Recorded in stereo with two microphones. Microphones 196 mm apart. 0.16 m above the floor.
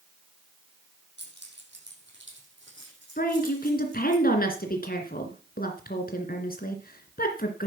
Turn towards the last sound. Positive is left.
turn(degrees=50)  # may be behind; listen again after turning